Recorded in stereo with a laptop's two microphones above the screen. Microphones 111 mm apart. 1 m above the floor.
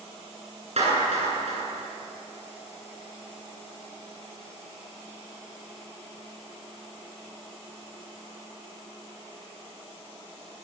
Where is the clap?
70° right (ahead or behind), 10 m.